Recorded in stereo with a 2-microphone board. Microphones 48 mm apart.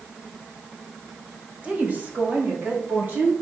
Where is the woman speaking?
25° right (ahead or behind), 2.0 m; by 3.3 s 35° right (ahead or behind), 3.5 m.